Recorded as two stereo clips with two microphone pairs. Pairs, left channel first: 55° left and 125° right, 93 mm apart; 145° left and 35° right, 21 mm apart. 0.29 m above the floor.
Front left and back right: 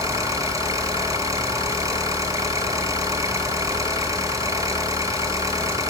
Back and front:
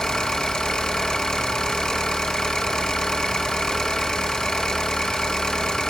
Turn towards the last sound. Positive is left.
turn(degrees=-175)